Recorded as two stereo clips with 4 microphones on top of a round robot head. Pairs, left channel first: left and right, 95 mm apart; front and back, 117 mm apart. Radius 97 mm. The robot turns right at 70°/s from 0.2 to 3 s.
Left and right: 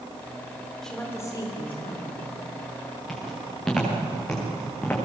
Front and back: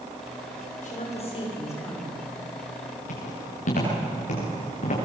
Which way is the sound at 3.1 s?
5° left.